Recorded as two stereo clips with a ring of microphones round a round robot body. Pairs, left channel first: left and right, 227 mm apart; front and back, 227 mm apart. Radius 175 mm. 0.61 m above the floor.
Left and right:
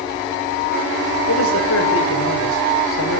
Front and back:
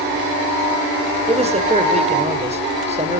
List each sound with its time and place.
1.3 s a man speaking: 120° left, 3.5 m